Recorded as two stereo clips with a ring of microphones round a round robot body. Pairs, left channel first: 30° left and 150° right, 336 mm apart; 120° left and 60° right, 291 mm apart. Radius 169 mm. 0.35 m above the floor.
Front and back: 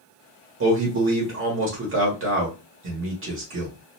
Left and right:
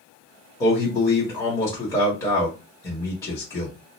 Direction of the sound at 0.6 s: 165° right.